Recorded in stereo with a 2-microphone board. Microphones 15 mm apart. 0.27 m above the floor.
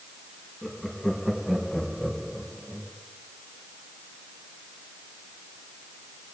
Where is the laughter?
15° left (ahead or behind), 3 m; by 2.9 s 45° right (ahead or behind), 1.9 m.